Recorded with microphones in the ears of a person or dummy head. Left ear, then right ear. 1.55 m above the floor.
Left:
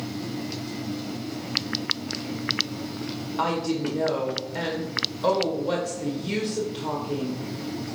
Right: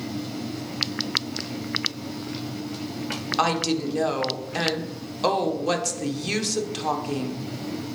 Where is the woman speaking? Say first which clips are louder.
Right 2 dB; 65° right (ahead or behind), 1.2 m.